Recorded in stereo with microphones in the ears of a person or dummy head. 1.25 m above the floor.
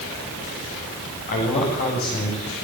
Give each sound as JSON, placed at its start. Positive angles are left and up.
{"t": 1.3, "sound": "a man speaking", "side_deg": 50, "distance_m": 8.5}